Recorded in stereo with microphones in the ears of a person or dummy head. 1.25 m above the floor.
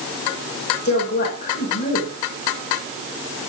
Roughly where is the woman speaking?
Left.